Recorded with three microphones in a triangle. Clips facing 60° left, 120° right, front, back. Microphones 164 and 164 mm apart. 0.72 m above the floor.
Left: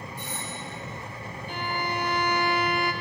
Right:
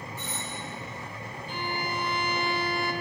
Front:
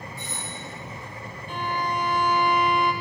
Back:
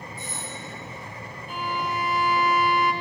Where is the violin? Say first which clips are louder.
Left 2 dB, front 1 dB; 95° left, 2 m.